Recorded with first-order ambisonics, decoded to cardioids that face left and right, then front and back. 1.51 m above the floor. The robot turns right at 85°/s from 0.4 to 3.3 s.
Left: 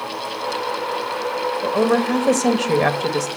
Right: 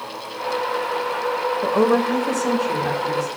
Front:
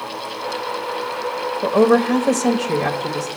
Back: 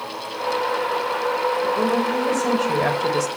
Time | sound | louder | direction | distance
1.6 | a woman speaking | even, front 5 dB | 5° right | 1.1 m